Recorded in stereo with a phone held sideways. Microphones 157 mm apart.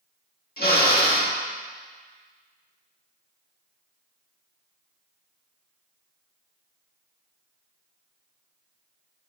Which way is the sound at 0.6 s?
80° left.